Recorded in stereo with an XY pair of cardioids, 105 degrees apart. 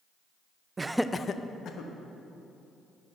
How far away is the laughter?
About 0.7 m.